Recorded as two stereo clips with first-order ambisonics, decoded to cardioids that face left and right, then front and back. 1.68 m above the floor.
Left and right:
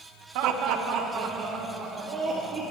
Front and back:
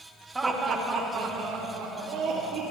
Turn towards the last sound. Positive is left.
turn(degrees=-165)